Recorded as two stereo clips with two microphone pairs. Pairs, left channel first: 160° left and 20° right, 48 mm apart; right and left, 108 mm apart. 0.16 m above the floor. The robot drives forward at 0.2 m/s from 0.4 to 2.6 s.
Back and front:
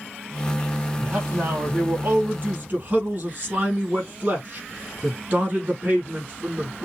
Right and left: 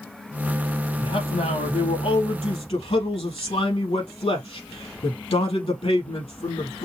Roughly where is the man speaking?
Right.